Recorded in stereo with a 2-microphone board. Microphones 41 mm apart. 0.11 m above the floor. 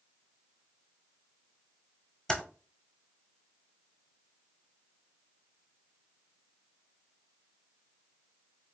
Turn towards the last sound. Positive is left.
turn(degrees=15)  # may be behind; listen again after turning